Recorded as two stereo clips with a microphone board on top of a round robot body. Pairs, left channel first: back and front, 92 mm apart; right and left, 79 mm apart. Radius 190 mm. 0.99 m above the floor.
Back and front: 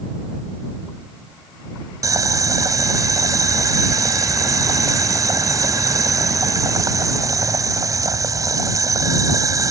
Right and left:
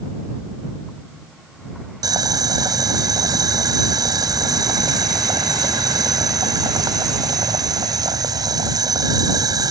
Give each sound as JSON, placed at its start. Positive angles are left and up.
{"t": 2.0, "sound": "boiling", "azimuth_deg": 50}